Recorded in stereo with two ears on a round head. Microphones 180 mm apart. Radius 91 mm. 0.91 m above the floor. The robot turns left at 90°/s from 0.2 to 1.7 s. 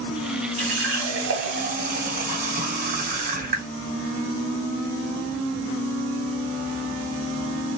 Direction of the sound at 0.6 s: 40° right.